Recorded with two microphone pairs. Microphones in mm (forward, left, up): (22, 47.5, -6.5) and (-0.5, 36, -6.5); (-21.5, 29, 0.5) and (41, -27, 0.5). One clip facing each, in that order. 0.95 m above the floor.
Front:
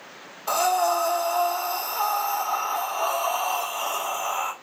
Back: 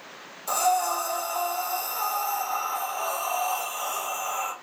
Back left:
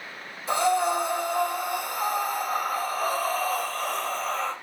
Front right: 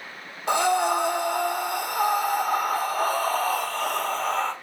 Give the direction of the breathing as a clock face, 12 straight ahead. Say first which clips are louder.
Front 2 dB, front right 1 dB; 1 o'clock.